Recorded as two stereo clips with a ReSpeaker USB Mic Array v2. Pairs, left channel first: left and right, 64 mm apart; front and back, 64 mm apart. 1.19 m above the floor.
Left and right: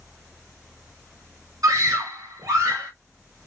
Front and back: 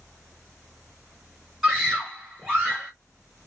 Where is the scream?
90° right, 0.9 m.